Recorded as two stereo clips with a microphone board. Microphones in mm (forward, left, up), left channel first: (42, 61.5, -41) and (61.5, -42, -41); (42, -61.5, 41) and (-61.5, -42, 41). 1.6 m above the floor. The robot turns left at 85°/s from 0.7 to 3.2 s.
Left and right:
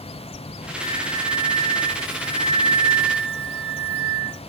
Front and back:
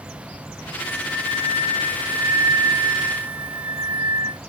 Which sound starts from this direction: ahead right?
A flute, at 0.8 s.